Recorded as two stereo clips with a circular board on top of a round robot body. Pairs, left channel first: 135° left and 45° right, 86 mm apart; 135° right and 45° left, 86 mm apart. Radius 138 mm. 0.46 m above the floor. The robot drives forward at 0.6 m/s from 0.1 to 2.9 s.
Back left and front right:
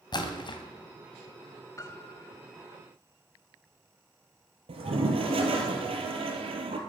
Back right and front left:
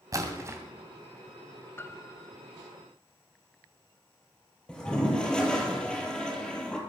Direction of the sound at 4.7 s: 55° right.